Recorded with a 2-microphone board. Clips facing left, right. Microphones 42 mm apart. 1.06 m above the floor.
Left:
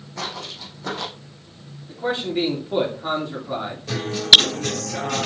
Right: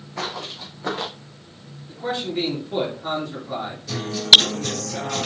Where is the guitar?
50° left (ahead or behind), 3.5 m.